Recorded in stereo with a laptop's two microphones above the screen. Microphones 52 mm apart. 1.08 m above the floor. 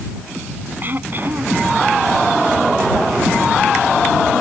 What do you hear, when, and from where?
0.8 s throat clearing: 40° right (ahead or behind)